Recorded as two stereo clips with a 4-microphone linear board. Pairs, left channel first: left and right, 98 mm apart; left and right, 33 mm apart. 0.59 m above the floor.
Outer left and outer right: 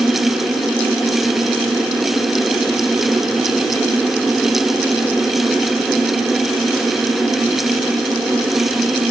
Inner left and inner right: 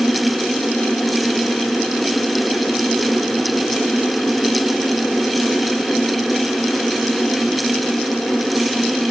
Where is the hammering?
No hammering in this recording.